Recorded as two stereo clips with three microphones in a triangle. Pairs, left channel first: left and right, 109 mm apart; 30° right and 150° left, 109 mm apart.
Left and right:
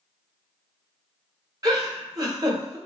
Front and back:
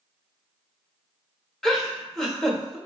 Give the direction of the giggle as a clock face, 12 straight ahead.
4 o'clock.